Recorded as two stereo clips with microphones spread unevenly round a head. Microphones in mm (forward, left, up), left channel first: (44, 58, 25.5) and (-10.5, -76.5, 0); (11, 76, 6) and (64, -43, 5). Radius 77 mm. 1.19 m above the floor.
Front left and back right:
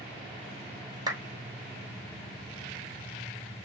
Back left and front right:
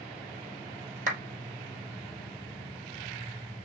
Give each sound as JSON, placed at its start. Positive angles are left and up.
{"t": 1.1, "sound": "a clap", "azimuth_deg": -45, "distance_m": 3.5}